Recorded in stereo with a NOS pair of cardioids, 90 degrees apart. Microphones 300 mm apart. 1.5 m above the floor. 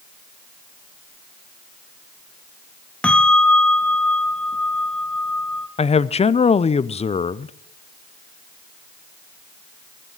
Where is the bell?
5° left, 0.9 m.